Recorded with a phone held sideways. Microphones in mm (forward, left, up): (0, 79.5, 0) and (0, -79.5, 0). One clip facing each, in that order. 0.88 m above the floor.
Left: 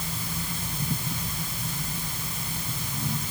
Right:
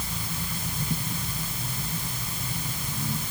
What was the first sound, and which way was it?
Only background noise.